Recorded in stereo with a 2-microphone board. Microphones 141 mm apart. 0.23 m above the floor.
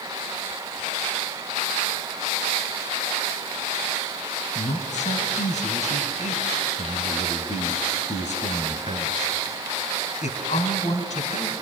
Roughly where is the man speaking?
Left.